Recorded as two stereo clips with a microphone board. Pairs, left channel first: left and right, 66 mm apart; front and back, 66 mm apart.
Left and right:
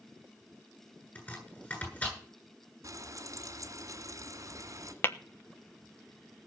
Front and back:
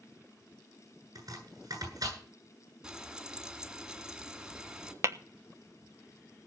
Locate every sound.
1.1 s chopping: 150° left, 9 m
2.8 s frying: 100° right, 2.5 m
5.0 s tapping: 140° left, 1.0 m